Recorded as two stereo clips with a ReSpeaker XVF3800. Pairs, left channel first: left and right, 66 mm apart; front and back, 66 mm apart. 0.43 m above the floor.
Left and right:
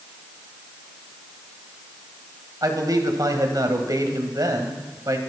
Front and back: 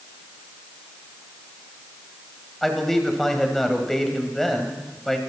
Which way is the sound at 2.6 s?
85° right.